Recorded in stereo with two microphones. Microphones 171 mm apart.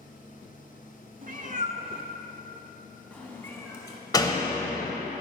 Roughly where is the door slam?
Left.